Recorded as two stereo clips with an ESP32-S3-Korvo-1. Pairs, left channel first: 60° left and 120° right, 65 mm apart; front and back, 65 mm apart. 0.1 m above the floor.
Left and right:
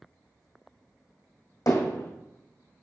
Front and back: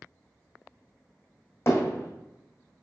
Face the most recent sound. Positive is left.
turn(degrees=50)